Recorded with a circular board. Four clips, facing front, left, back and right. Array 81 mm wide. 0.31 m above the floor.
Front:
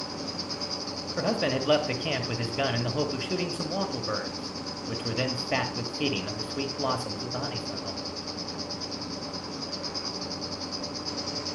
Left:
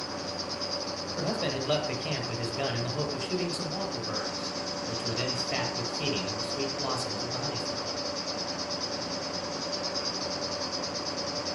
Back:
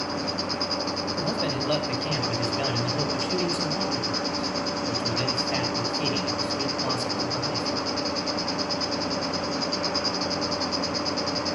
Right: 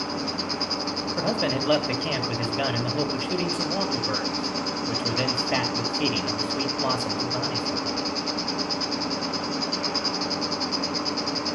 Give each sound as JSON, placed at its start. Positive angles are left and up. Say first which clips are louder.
{"t": 0.0, "sound": "an insect", "louder": "right 6 dB, back 7 dB", "azimuth_deg": -130, "distance_m": 0.9}
{"t": 1.2, "sound": "a man speaking", "louder": "right 5 dB, front 4 dB", "azimuth_deg": -50, "distance_m": 1.5}